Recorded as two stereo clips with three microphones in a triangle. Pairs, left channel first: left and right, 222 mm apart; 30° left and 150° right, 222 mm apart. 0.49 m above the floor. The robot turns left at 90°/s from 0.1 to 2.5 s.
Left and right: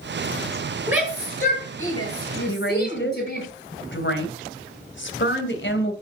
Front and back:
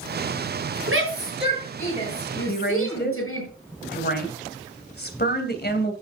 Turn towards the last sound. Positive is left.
turn(degrees=65)